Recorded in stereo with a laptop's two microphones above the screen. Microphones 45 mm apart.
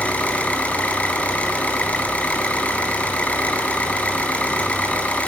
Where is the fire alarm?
I don't hear a fire alarm.